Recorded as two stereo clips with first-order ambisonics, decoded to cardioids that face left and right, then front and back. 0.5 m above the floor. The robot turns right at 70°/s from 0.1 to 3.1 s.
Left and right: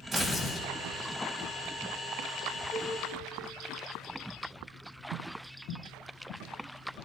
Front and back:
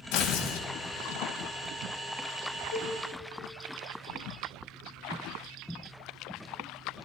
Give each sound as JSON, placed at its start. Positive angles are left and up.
{"t": 0.1, "sound": "tearing paper", "azimuth_deg": -20, "distance_m": 1.7}
{"t": 2.7, "sound": "a cowbell", "azimuth_deg": 15, "distance_m": 3.5}